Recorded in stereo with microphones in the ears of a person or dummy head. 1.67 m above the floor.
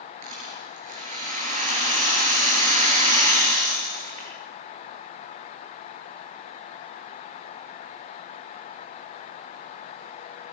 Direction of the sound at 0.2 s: 45° right (ahead or behind).